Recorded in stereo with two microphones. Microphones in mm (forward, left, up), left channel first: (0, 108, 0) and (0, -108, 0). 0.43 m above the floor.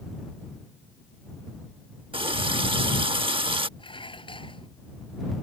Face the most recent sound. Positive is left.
turn(degrees=25)  # may be behind; listen again after turning